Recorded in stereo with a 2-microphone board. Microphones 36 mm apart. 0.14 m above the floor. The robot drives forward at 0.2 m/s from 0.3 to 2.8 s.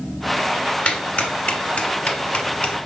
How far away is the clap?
About 1.4 m.